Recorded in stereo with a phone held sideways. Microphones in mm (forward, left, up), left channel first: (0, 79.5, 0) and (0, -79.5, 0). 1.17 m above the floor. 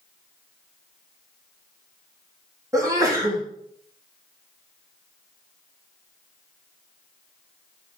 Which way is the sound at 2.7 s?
20° right (ahead or behind).